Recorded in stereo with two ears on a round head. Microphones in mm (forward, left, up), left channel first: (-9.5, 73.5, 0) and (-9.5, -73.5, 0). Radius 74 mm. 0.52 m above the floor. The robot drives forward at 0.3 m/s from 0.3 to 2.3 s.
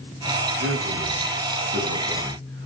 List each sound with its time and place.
0.6 s a man speaking: 65° right (ahead or behind), 7 m